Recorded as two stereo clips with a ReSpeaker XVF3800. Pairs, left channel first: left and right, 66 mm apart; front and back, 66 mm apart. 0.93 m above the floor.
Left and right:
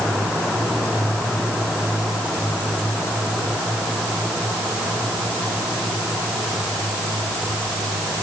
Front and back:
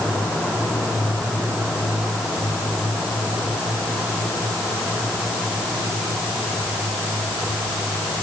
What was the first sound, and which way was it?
Only background noise.